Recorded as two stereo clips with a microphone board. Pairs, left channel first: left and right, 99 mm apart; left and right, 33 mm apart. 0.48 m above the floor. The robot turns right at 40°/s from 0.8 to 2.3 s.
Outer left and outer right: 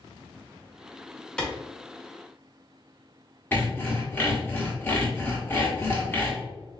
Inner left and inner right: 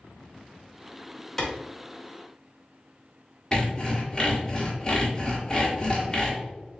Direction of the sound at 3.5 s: 20° left (ahead or behind).